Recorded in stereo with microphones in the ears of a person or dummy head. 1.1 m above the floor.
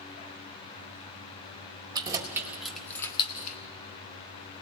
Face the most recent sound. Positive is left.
turn(degrees=45)  # may be behind; listen again after turning